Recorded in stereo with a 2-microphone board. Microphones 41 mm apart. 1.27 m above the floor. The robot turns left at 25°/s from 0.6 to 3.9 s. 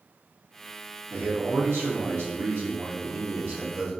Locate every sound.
1.1 s a man speaking: 65° right, 1.7 m; by 3.9 s 135° right, 1.7 m